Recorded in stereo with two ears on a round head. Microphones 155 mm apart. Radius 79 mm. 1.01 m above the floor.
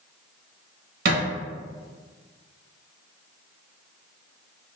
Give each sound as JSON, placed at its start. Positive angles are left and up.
{"t": 1.1, "sound": "a thud", "side_deg": -60, "distance_m": 1.6}